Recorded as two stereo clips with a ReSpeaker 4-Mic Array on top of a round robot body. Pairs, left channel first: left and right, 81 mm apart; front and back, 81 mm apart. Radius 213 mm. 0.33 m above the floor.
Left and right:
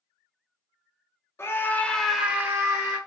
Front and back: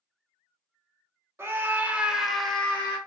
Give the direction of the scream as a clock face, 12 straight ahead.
8 o'clock.